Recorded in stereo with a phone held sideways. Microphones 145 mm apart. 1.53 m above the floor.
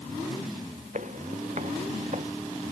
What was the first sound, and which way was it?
Footsteps, 55° right (ahead or behind).